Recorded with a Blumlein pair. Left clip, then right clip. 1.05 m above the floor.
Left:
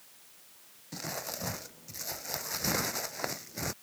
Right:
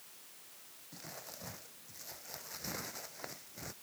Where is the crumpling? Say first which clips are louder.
Left 12 dB; 60° left.